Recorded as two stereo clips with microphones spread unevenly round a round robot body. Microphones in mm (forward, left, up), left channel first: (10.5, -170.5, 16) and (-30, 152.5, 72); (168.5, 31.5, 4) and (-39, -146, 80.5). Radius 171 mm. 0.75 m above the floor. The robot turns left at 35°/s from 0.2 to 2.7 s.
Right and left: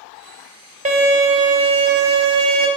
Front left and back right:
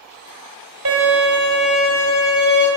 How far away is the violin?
About 1.6 m.